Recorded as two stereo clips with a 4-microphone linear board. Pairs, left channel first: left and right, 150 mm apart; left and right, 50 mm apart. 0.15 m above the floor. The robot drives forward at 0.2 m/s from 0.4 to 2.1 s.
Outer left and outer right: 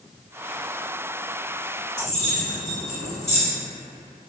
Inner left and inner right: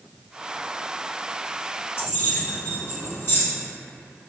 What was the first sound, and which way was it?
Keys jangling, 50° left (ahead or behind).